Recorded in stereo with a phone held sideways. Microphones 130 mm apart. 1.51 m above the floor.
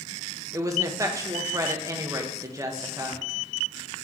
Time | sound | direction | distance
0.5 | a woman speaking | 25° right (ahead or behind) | 1.2 m